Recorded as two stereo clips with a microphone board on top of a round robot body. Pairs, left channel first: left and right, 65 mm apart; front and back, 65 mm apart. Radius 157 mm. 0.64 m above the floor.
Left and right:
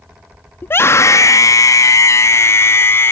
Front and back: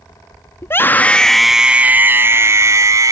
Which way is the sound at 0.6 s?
40° left.